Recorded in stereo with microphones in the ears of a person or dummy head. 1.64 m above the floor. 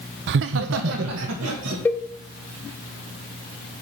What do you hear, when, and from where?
0.3 s laughter: 55° right (ahead or behind), 0.5 m; by 1.8 s 80° right, 2.5 m
1.9 s a cowbell: 10° left (ahead or behind), 0.8 m